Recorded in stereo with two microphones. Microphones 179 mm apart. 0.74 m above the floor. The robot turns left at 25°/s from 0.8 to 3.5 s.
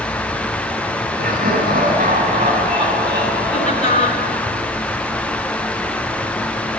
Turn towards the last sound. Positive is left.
turn(degrees=45)  # may be behind; listen again after turning